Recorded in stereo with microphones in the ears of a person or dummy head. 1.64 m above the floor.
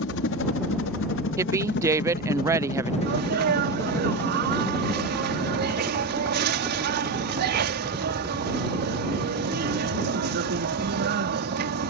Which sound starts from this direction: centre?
A woman speaking, at 1.4 s.